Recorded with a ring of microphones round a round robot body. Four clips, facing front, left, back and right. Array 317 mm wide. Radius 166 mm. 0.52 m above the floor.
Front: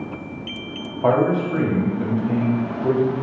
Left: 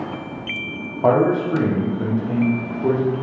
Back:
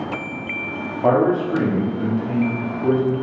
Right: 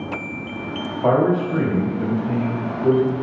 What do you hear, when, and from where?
1.0 s a man speaking: 120° left, 1.6 m